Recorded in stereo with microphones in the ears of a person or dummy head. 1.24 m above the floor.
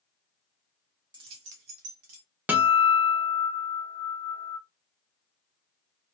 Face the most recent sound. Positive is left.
turn(degrees=-5)  # may be behind; listen again after turning